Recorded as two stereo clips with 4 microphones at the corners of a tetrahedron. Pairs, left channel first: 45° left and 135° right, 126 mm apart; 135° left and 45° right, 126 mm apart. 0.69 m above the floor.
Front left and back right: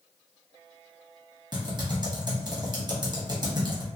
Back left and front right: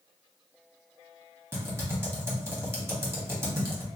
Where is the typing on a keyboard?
100° right, 0.9 m.